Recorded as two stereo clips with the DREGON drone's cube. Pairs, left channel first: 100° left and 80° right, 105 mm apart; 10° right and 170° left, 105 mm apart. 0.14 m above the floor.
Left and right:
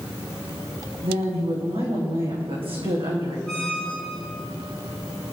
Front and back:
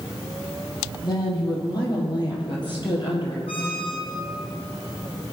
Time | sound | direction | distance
1.0 | a woman speaking | 60° right | 7 m
3.5 | a squeak | 20° left | 3.5 m